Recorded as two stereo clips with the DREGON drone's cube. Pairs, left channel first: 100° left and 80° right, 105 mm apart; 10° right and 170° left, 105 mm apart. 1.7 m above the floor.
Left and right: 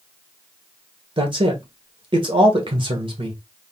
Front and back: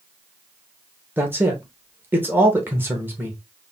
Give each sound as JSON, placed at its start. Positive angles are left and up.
{"t": 1.2, "sound": "a man speaking", "azimuth_deg": -120, "distance_m": 1.5}